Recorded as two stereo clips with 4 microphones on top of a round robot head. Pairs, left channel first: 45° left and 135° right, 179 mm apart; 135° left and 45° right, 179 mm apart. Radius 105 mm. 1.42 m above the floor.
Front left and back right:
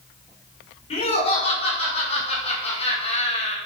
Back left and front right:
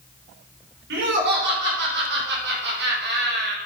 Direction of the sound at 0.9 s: 15° right.